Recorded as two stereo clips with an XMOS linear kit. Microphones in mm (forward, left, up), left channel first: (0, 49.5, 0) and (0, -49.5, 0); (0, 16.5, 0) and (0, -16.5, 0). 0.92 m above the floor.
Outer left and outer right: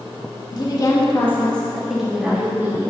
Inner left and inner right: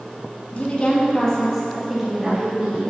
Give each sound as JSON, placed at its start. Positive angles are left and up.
{"t": 0.5, "sound": "a woman speaking", "side_deg": 45, "distance_m": 1.5}